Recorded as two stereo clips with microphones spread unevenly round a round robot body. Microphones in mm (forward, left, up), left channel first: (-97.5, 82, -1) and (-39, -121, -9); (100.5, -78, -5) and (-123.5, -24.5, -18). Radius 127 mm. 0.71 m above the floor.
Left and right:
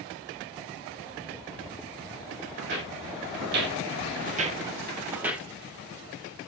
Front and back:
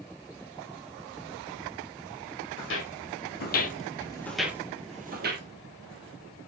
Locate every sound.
2.6 s footsteps: 30° right, 1.6 m; by 5.5 s 160° right, 1.1 m